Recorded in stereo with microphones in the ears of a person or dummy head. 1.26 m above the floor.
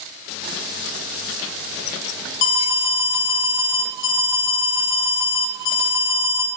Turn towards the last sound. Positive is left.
turn(degrees=65)  # may be behind; listen again after turning